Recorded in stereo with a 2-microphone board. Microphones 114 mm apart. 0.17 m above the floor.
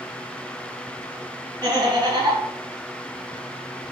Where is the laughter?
30° right (ahead or behind), 1.3 m.